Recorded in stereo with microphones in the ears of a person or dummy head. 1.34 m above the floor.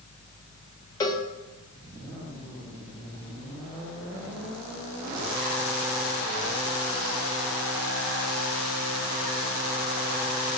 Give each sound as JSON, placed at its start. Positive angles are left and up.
{"t": 1.0, "sound": "a cowbell", "side_deg": 20, "distance_m": 1.3}